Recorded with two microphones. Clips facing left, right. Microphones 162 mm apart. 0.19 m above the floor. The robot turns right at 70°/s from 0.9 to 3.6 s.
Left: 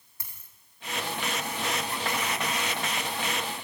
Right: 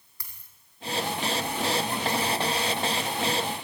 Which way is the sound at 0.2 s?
25° left (ahead or behind).